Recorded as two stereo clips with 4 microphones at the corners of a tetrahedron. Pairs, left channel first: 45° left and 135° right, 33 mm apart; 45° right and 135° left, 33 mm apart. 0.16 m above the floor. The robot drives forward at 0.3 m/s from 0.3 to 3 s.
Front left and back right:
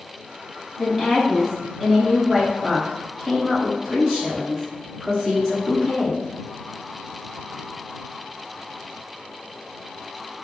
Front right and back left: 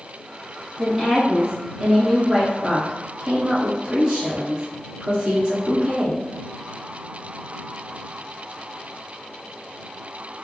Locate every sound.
0.8 s a woman speaking: 105° left, 1.3 m; by 6.2 s 145° left, 1.5 m